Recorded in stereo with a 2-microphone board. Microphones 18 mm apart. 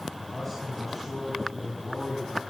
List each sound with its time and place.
0.2 s a man speaking: 15° left (ahead or behind), 5 m